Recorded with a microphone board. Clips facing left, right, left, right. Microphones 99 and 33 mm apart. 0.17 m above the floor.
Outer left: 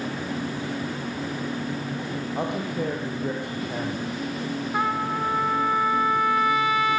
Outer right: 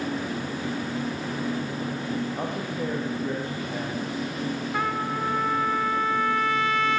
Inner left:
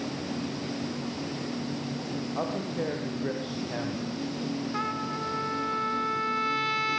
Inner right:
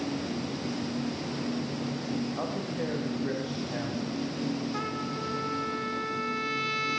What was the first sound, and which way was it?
A man speaking, 60° left (ahead or behind).